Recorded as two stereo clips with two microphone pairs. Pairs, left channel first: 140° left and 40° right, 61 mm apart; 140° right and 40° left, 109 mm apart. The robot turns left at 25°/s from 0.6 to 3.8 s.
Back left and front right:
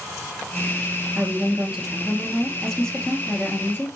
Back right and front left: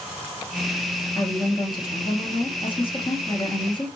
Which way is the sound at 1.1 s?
100° right.